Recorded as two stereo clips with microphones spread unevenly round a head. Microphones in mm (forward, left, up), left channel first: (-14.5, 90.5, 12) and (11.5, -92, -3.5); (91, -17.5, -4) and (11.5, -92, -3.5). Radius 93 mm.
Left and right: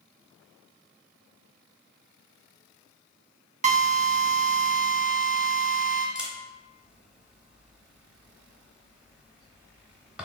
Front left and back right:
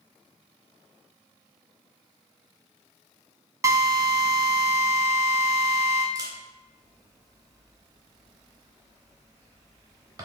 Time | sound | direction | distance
3.6 | a drill | 90° right | 1.0 m
6.2 | a camera shutter | 170° right | 0.8 m